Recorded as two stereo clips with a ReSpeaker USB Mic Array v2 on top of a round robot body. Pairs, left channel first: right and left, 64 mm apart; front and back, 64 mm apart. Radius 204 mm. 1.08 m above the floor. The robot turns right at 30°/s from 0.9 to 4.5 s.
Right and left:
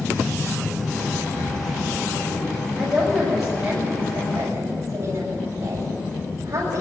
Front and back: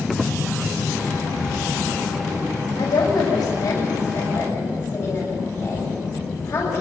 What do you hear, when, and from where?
1.4 s breathing: 85° right, 5.5 m; by 1.7 s 75° right, 5.5 m
2.8 s a woman speaking: 10° right, 8.5 m; by 6.8 s 40° left, 8.5 m